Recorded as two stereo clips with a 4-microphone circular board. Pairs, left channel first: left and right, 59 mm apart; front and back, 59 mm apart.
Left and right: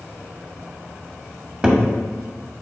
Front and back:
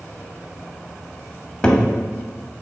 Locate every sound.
1.6 s a cupboard door: 40° right, 0.6 m